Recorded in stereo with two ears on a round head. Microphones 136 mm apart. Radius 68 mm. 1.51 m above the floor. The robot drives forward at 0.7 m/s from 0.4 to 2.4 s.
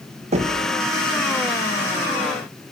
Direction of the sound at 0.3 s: 45° right (ahead or behind).